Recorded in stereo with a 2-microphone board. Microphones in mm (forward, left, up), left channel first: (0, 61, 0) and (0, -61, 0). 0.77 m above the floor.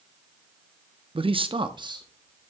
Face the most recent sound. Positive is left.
turn(degrees=-30)  # may be behind; listen again after turning